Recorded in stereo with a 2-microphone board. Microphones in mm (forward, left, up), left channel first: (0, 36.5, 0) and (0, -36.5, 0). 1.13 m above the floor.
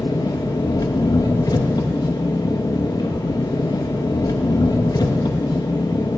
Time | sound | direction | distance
0.0 | an engine running | 65° left (ahead or behind) | 0.9 m